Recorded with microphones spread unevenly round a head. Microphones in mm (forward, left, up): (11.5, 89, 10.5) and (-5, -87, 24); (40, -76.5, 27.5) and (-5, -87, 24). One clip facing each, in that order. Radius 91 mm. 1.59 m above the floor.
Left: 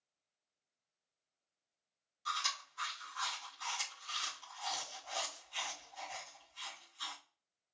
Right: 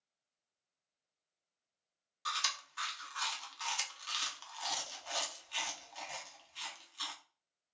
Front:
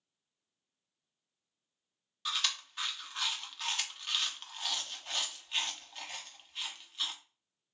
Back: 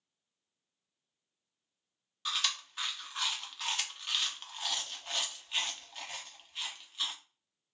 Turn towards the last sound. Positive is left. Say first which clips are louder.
# even, even
turn(degrees=-80)